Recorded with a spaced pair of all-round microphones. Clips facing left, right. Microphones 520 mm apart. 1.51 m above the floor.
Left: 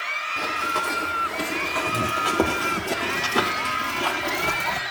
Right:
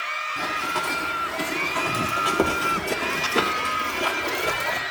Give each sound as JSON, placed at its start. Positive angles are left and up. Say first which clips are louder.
{"t": 0.4, "sound": "running footsteps", "louder": "left 1 dB", "side_deg": -10, "distance_m": 3.0}